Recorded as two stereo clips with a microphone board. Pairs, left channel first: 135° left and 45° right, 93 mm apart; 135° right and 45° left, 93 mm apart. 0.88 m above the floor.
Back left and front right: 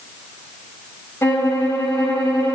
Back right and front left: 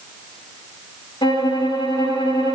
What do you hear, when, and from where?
1.2 s a violin: 160° right, 4 m